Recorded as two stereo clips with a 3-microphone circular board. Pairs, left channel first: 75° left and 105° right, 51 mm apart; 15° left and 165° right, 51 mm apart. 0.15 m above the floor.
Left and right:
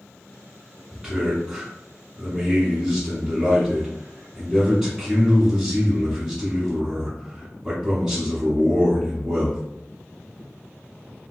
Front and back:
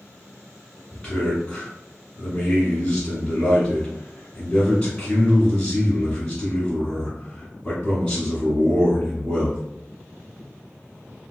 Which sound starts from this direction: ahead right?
A man speaking, at 0.9 s.